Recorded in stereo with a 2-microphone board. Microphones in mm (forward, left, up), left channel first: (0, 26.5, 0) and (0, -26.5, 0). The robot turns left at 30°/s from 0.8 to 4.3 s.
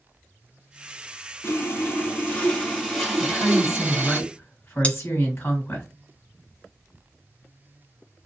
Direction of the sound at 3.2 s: 95° left.